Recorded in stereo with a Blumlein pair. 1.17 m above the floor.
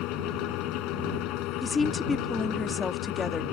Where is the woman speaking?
10° left.